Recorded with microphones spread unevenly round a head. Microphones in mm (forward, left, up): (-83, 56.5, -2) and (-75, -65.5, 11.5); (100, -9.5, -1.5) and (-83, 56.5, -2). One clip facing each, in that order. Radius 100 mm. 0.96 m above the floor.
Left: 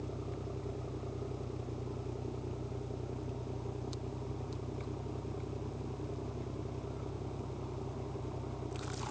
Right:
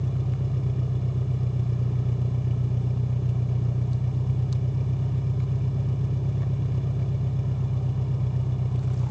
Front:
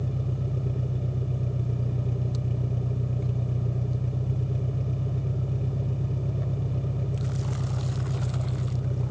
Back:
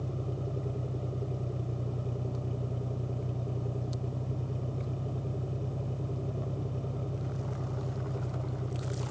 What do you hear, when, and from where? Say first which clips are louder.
0.0 s an engine running: right 10 dB, front 4 dB; 85° right